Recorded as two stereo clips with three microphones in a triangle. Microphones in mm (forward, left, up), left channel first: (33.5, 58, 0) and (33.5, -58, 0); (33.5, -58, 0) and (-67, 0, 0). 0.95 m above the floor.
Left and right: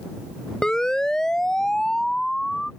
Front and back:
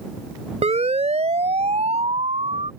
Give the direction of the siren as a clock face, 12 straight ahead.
6 o'clock.